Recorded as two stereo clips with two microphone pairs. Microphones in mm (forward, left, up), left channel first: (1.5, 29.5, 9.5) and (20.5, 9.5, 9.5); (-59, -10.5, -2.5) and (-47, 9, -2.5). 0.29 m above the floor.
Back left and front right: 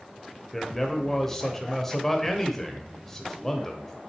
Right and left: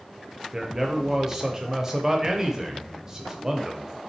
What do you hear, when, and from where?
0.5 s a man speaking: 90° left, 0.9 m